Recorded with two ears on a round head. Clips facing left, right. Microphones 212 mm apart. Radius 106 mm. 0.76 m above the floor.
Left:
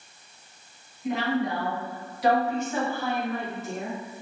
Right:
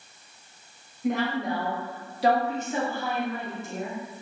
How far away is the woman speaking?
About 1.2 m.